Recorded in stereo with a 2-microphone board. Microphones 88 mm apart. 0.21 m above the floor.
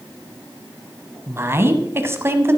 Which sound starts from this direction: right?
A woman speaking, at 1.3 s.